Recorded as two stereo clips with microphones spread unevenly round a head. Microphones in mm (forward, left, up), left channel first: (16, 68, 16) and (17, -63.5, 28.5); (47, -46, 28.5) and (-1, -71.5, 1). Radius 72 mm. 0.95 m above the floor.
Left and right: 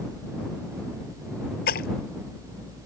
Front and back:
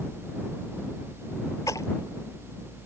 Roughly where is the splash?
Left.